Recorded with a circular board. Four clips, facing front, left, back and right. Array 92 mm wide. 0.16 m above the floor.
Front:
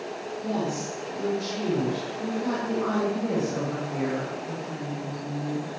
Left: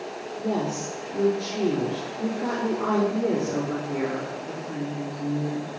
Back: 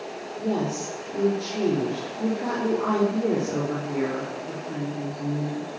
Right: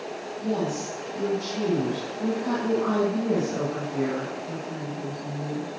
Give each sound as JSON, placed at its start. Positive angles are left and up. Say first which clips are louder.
{"t": 0.4, "sound": "a woman speaking", "louder": "even, back 3 dB", "azimuth_deg": 135, "distance_m": 5.5}